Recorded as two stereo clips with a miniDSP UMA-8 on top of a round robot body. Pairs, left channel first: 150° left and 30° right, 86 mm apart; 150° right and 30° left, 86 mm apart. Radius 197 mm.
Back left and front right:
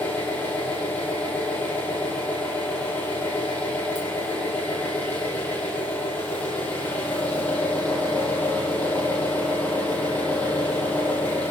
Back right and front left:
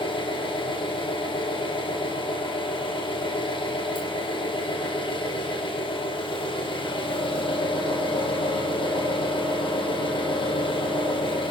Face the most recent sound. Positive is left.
turn(degrees=-135)